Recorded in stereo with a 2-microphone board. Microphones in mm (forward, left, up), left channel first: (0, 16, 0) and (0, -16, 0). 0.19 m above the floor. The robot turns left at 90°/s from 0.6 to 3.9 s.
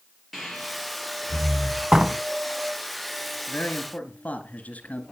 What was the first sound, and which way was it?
Breathing, centre (ahead or behind).